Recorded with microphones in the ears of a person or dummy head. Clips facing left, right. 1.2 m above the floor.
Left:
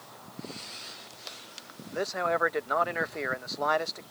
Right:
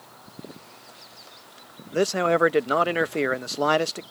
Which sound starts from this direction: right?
A man speaking, at 1.9 s.